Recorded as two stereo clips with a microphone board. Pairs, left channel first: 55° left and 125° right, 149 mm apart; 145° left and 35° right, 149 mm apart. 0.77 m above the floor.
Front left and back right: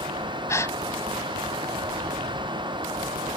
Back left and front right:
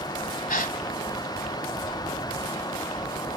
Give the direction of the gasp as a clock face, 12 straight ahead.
8 o'clock.